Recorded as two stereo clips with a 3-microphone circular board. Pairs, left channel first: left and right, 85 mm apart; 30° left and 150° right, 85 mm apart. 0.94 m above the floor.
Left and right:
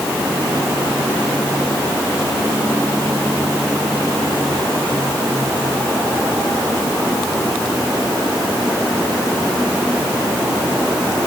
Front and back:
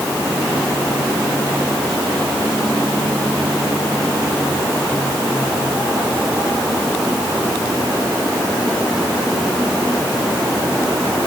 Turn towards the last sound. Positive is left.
No sound to turn to.